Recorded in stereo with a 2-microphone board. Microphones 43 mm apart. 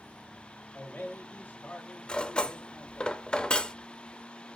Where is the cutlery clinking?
20° left (ahead or behind), 0.6 m.